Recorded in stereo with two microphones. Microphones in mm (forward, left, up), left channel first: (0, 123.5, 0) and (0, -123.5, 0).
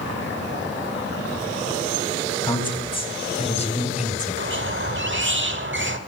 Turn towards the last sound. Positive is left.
turn(degrees=-50)  # may be behind; listen again after turning